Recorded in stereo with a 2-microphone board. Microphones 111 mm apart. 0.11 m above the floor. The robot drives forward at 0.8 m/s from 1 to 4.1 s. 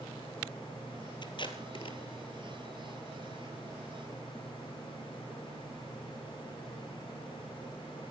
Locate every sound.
1.2 s tape being pulled: 45° left (ahead or behind), 2 m; by 2.0 s 50° left (ahead or behind), 1.9 m